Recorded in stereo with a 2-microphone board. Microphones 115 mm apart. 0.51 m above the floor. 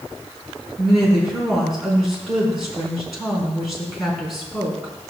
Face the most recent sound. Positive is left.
turn(degrees=0)  # may be behind; listen again after turning